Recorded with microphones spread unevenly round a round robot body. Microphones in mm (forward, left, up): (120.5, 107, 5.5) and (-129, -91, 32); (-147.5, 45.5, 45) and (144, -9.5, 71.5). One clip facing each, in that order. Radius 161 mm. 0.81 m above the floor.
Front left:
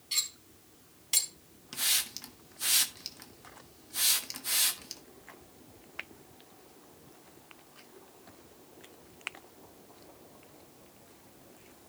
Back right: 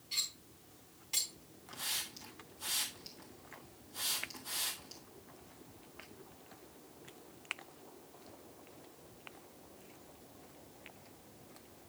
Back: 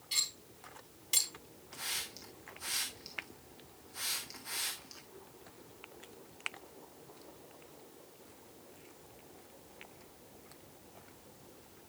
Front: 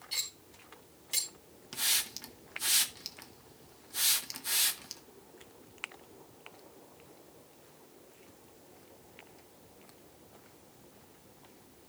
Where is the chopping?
I don't hear chopping.